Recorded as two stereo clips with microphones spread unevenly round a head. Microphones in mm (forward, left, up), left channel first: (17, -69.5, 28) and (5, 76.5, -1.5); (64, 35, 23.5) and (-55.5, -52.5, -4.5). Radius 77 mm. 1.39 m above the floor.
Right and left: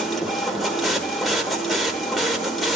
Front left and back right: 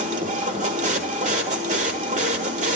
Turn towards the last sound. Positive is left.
turn(degrees=-155)